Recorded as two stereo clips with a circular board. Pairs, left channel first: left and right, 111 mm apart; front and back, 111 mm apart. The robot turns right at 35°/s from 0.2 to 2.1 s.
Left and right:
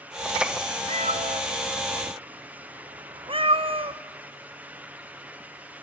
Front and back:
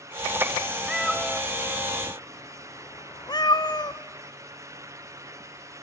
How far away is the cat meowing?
About 0.9 m.